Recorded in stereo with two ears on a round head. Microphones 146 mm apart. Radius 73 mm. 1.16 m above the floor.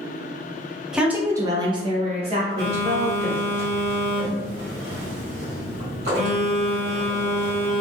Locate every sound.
0.9 s a woman speaking: 5° right (ahead or behind), 0.7 m; by 3.6 s 35° right (ahead or behind), 1.5 m
2.6 s a phone buzzing: 70° right (ahead or behind), 1.4 m